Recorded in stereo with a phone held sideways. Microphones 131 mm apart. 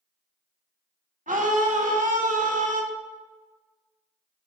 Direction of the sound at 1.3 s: 85° right.